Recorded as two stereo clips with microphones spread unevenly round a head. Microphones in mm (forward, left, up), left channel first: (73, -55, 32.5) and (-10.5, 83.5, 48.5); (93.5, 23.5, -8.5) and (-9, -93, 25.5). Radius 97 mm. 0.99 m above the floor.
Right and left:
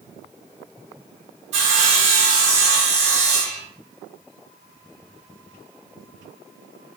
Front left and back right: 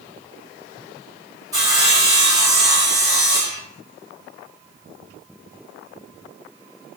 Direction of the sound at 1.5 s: 170° left.